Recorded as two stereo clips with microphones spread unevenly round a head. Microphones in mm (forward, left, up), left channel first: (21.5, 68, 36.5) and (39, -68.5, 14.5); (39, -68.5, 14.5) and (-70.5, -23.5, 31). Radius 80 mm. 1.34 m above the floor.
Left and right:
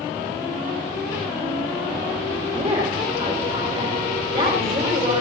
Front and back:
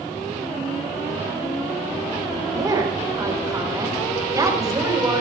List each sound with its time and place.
2.5 s a woman speaking: 140° right, 5 m